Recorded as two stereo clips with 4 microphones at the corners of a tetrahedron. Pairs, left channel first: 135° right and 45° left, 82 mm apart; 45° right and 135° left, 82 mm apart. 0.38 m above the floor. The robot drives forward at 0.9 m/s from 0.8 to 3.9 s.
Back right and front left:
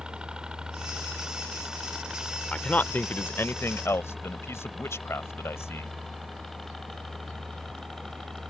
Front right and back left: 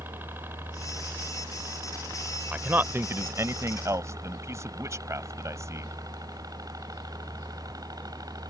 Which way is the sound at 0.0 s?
110° left.